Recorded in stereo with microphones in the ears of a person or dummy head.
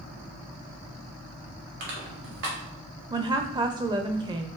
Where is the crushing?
65° right (ahead or behind), 2.5 m.